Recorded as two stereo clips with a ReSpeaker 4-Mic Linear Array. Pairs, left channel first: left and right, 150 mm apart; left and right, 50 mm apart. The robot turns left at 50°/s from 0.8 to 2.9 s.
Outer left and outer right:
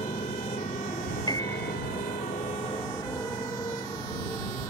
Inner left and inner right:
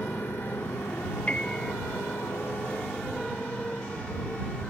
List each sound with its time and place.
0.0 s a motorcycle: 45° left (ahead or behind); by 4.7 s 25° left (ahead or behind)
1.3 s a piano: 30° left (ahead or behind); by 1.7 s 5° left (ahead or behind)